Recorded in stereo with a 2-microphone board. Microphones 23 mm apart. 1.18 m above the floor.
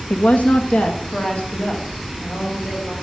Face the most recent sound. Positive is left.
turn(degrees=45)  # may be behind; listen again after turning